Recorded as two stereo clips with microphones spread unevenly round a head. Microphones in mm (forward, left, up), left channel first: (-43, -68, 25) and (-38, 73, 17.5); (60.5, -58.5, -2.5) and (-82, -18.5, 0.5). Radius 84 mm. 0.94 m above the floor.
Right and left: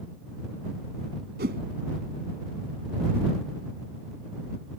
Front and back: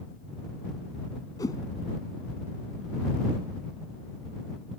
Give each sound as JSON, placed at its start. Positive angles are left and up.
{"t": 1.4, "sound": "a whoosh", "azimuth_deg": 55}